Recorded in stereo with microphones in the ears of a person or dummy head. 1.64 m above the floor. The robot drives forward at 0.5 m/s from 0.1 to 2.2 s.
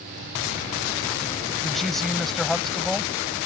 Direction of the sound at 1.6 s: 5° left (ahead or behind).